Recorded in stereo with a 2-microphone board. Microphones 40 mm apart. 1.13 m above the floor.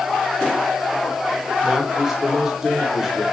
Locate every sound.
1.6 s a man speaking: 10° right (ahead or behind), 2.5 m